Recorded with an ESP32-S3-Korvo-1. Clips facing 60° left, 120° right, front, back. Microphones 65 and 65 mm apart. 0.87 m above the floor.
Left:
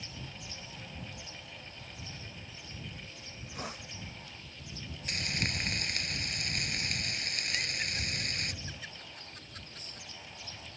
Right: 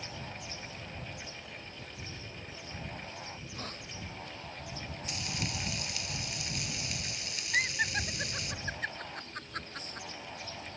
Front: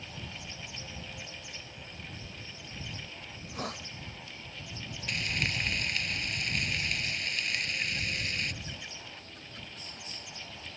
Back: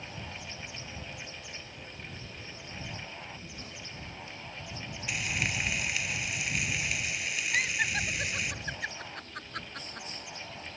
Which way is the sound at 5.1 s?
95° left.